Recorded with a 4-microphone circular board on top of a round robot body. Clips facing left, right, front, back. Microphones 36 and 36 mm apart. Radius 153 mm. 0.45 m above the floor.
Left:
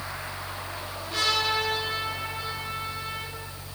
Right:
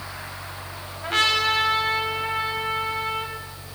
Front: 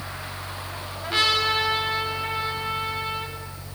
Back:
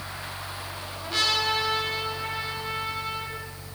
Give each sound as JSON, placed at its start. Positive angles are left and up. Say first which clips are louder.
{"t": 1.0, "sound": "a trumpet", "louder": "right 5 dB, front 3 dB", "azimuth_deg": -60, "distance_m": 4.5}